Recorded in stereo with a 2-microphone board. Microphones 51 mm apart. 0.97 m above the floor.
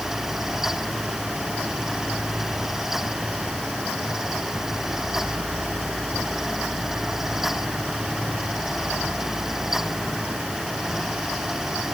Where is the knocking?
I don't hear knocking.